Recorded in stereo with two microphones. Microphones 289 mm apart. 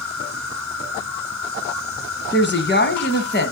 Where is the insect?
40° right (ahead or behind), 1.1 m.